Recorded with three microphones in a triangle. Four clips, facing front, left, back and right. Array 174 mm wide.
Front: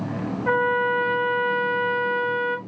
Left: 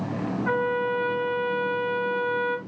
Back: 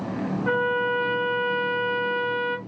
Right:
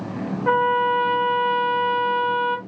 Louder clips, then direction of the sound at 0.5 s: Right 7 dB, front 3 dB; 70° right.